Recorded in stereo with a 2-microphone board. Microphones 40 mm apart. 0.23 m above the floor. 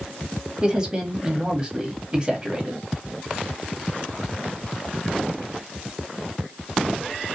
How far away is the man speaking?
About 1.0 m.